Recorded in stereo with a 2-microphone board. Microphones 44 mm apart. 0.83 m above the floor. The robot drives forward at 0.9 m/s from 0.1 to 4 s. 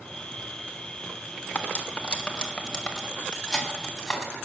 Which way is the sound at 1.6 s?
35° left (ahead or behind).